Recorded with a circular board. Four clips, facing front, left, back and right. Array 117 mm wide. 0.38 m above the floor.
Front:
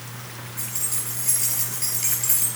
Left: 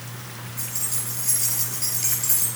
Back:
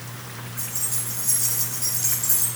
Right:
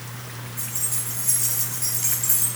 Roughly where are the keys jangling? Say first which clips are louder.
Even, even; ahead.